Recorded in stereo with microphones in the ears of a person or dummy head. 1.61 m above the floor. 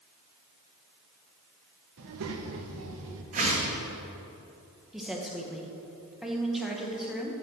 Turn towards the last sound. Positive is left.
turn(degrees=-5)  # may be behind; listen again after turning